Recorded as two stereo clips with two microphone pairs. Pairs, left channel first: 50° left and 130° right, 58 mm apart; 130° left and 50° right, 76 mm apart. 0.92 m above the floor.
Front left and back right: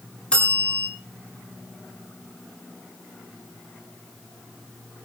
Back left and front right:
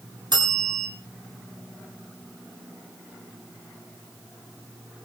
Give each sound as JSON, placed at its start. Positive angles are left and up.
{"t": 0.3, "sound": "a bell", "azimuth_deg": -25, "distance_m": 7.0}